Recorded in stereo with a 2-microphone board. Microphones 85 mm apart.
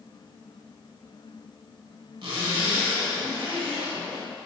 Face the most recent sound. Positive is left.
turn(degrees=-75)  # may be behind; listen again after turning